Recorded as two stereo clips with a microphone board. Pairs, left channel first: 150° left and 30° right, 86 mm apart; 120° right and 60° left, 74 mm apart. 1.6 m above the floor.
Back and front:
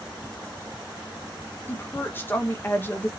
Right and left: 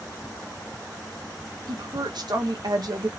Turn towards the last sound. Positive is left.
turn(degrees=85)